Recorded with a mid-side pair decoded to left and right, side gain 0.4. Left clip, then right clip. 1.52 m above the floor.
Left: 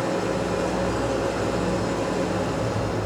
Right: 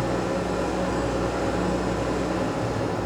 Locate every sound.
0.0 s an engine running: 50° left, 1.4 m